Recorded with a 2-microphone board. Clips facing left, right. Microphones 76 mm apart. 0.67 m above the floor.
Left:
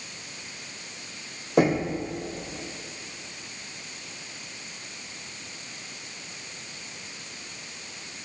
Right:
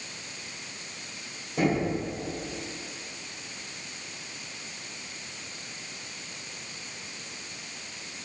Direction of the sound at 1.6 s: 75° left (ahead or behind).